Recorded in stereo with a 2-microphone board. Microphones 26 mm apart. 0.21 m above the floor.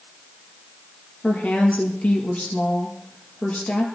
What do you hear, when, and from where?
1.2 s a woman speaking: 60° left (ahead or behind), 5.5 m